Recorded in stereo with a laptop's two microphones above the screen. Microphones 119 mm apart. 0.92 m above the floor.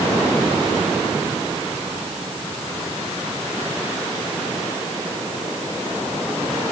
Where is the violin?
No violin in this recording.